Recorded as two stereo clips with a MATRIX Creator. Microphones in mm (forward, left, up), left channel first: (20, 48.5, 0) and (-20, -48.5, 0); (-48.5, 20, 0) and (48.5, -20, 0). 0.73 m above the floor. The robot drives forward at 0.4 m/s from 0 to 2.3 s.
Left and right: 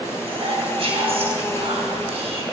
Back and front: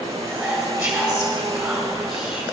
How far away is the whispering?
About 4 m.